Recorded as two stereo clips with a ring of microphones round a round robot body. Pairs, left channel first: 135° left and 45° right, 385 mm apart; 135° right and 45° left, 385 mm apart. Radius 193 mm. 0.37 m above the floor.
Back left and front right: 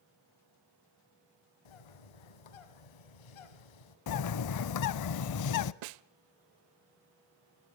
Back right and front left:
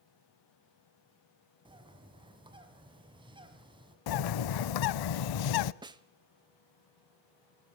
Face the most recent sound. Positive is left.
turn(degrees=-35)